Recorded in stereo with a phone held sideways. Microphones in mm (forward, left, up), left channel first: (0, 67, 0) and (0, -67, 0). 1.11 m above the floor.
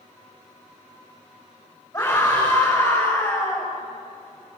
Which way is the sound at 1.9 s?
20° left (ahead or behind).